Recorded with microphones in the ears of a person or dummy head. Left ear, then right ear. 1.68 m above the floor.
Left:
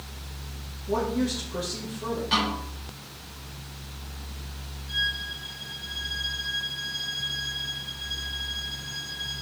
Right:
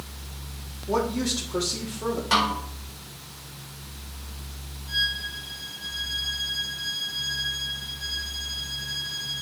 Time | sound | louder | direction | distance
0.9 | a woman speaking | right 1 dB | 60° right (ahead or behind) | 2.5 m
2.3 | a snare drum | right 3 dB | 45° right (ahead or behind) | 4 m
4.9 | a violin | right 2 dB | 35° right (ahead or behind) | 6.5 m